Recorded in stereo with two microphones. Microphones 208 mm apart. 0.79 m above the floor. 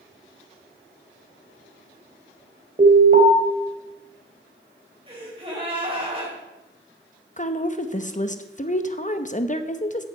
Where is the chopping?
I don't hear chopping.